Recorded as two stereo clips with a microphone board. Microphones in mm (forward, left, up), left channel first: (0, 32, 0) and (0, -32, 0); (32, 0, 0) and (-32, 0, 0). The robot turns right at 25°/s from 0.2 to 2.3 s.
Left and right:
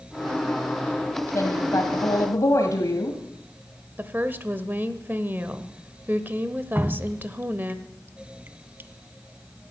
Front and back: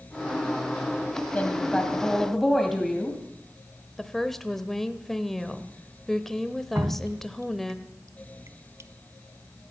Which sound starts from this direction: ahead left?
A woman speaking, at 1.3 s.